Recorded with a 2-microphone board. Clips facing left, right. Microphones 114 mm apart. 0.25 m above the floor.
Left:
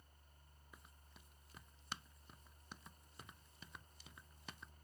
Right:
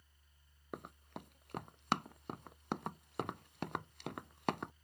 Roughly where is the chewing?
I don't hear chewing.